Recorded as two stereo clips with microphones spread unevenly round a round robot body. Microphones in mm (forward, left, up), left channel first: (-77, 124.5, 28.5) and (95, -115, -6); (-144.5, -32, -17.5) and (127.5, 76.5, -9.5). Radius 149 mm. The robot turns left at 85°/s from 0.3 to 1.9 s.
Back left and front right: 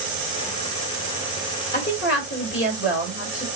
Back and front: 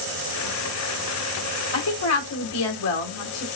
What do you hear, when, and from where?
1.7 s a woman speaking: 170° right, 2 m; by 3.5 s 175° left, 2 m